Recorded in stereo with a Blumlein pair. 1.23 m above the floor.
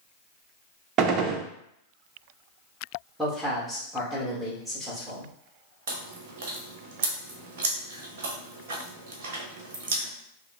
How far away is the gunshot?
About 0.6 m.